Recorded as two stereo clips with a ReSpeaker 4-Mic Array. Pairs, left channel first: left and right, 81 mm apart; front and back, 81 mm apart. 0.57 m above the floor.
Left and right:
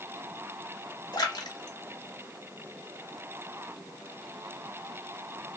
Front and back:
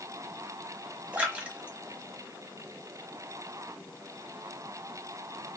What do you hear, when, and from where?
1.1 s a splash: 110° left, 0.9 m